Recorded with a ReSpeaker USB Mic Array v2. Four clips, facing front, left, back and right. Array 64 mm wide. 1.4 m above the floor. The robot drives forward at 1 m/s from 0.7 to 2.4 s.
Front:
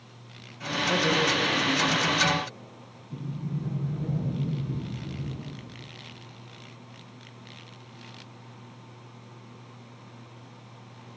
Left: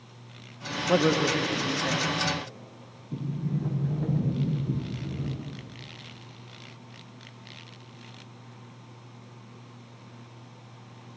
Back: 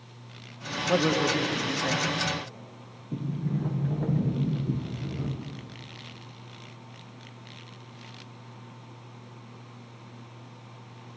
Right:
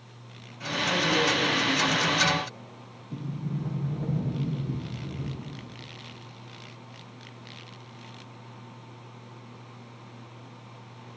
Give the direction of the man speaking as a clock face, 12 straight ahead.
8 o'clock.